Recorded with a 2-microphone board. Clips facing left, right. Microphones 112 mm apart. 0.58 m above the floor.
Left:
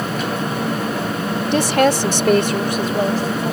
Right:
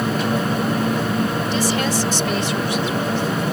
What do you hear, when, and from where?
1.5 s a woman speaking: 60° left (ahead or behind); by 3.5 s 35° left (ahead or behind)